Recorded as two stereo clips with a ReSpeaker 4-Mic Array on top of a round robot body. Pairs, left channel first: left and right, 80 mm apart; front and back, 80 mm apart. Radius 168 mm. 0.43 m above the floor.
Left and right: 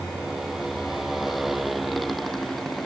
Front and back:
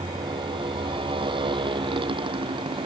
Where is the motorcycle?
175° right; by 2.9 s straight behind.